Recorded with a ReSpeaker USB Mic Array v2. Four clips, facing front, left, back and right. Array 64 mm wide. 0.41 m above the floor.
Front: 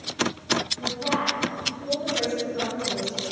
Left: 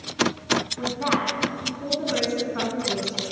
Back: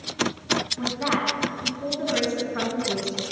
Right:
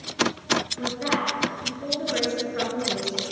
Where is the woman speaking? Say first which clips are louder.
Left 2 dB, back 1 dB; 130° left, 4.5 m.